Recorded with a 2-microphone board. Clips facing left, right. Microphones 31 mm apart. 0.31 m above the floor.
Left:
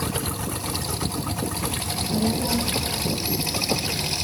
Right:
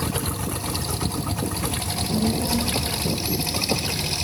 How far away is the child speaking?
About 9 m.